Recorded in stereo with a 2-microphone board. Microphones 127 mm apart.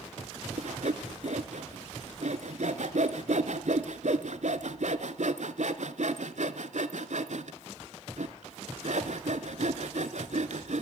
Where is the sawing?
65° right (ahead or behind), 0.8 m.